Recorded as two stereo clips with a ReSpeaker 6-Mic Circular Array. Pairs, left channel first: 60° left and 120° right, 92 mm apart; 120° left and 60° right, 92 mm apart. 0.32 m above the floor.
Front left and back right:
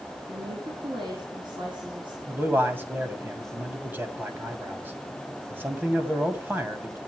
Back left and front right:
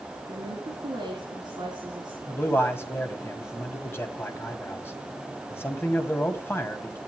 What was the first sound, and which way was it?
A woman speaking, 95° right.